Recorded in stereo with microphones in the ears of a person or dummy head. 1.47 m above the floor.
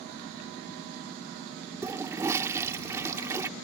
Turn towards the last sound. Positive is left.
turn(degrees=-20)  # may be behind; listen again after turning